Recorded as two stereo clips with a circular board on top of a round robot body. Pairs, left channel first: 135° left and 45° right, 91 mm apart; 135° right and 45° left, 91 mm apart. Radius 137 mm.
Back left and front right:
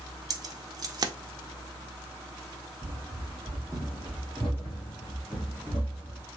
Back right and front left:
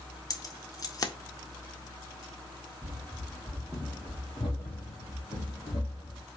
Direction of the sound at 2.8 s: Straight ahead.